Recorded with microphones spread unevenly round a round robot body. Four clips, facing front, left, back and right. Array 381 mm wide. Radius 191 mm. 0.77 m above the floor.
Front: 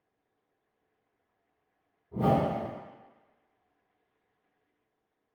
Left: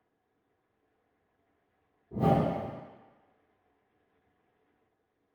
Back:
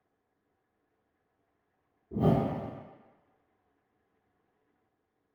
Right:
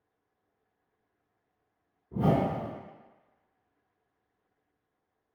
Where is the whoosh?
165° left, 0.7 m.